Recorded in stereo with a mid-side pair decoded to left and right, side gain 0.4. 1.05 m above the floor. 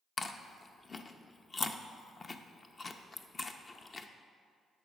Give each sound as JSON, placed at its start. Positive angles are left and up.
{"t": 0.2, "sound": "chewing", "azimuth_deg": 40, "distance_m": 0.7}